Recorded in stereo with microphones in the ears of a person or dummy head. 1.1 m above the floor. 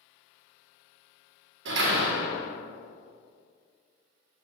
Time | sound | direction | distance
1.6 | a door slam | 70° right (ahead or behind) | 1.2 m